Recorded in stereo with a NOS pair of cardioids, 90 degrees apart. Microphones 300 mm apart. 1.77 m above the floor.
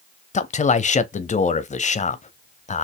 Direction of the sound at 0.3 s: 25° left.